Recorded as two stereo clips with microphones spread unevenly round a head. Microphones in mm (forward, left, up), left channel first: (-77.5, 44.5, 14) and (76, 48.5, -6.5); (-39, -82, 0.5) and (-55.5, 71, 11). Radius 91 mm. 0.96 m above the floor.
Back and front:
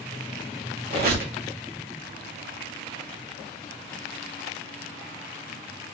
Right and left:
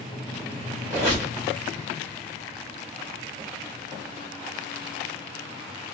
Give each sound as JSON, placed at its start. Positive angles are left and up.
{"t": 0.9, "sound": "a squeak", "azimuth_deg": 20, "distance_m": 1.1}